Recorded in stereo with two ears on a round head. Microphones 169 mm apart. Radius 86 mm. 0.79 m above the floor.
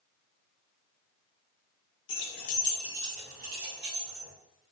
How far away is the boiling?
I don't hear boiling.